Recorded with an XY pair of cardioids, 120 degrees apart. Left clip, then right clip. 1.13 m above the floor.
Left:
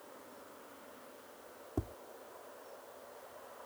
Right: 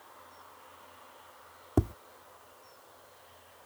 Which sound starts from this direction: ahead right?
Tapping, at 1.8 s.